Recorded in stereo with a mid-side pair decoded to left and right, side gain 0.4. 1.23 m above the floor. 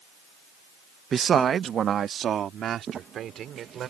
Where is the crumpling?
60° right.